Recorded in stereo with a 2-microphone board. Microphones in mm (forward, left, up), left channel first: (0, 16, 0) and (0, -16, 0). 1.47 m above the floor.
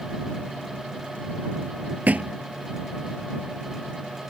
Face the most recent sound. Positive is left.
turn(degrees=-55)  # may be behind; listen again after turning